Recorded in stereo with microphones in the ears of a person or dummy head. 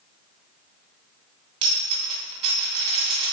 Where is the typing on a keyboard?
I don't hear typing on a keyboard.